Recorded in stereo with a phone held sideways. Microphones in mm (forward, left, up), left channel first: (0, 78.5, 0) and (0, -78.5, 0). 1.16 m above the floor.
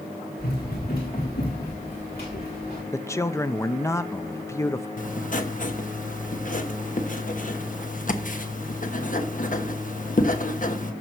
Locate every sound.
0.4 s running footsteps: 75° left (ahead or behind), 6 m; by 2.8 s 80° left, 6 m
2.9 s a man speaking: 20° left (ahead or behind), 0.6 m
5.0 s writing: 55° left (ahead or behind), 1.1 m